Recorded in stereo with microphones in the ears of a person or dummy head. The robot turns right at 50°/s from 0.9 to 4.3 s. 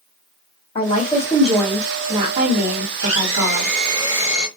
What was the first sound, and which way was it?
A woman speaking, 145° left.